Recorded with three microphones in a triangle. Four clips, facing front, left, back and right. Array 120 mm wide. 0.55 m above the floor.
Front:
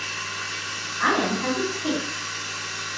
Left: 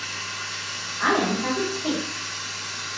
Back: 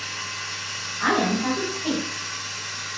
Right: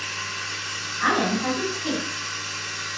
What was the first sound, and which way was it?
Running water, 20° right.